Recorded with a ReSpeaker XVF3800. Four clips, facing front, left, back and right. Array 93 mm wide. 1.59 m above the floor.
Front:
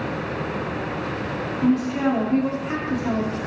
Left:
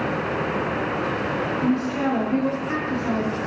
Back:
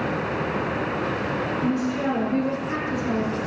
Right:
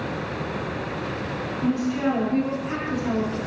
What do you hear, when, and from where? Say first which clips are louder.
1.6 s a woman speaking: right 1 dB, front 6 dB; 45° left, 0.7 m